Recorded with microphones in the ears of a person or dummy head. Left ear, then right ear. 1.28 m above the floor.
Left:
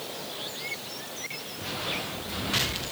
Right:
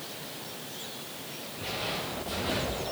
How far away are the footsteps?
About 1.5 m.